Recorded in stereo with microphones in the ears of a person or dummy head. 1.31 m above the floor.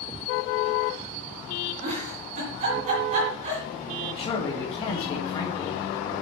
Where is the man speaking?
35° left (ahead or behind), 3.5 m.